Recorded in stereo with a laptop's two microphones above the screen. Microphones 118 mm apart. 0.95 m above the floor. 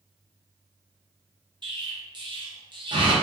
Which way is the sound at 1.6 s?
45° right (ahead or behind).